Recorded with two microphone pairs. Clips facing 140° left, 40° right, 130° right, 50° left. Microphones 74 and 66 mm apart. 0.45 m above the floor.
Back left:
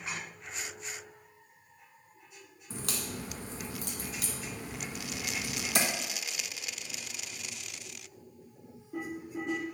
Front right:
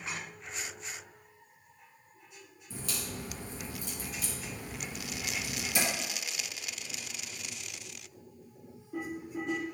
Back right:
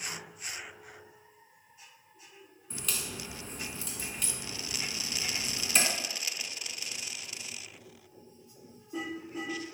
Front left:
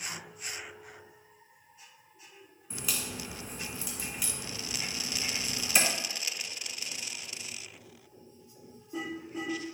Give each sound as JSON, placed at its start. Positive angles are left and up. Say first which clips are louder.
{"t": 2.7, "sound": "a crack", "louder": "back left 2 dB, front left 1 dB", "azimuth_deg": 140, "distance_m": 1.7}